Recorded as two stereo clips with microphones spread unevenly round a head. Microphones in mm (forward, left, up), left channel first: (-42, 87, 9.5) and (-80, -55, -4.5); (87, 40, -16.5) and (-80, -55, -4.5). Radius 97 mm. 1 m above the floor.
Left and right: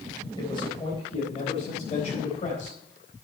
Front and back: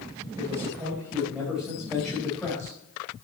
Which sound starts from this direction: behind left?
A man speaking, at 0.4 s.